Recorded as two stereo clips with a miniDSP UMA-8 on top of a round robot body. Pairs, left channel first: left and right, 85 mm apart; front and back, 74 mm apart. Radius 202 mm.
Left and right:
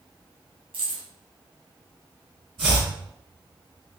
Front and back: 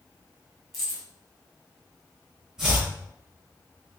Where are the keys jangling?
90° right, 1.7 m.